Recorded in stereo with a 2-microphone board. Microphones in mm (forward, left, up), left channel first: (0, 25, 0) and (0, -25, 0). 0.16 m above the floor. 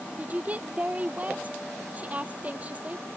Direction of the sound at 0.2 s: 30° right (ahead or behind).